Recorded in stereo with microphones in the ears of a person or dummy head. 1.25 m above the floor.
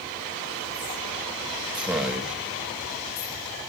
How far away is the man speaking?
About 1.1 m.